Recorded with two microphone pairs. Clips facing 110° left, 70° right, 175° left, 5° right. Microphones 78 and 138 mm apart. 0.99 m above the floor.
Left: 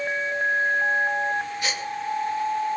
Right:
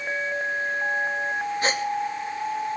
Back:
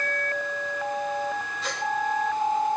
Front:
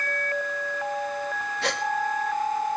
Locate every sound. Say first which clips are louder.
1.6 s a gasp: right 5 dB, front 4 dB; 15° right, 2 m